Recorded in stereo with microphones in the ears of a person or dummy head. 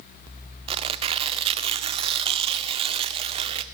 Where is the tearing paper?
25° right (ahead or behind), 1.0 m.